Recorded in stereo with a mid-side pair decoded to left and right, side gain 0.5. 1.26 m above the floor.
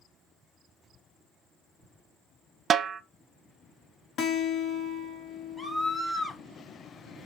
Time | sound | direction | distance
2.7 | a snare drum | 45° right | 0.6 m
4.2 | a guitar | 65° left | 1.0 m
5.6 | a scream | 20° left | 1.9 m